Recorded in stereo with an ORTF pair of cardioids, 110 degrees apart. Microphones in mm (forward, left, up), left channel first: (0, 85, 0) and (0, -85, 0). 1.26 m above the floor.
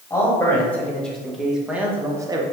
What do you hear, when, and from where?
0.1 s a man speaking: 15° left, 2.0 m; by 2.4 s 25° right, 1.0 m